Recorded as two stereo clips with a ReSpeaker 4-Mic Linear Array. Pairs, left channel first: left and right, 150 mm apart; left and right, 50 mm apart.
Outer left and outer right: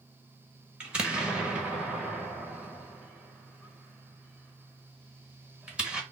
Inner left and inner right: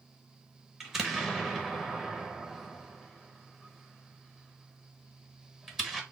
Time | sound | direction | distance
0.8 | an explosion | 5° right (ahead or behind) | 1.2 m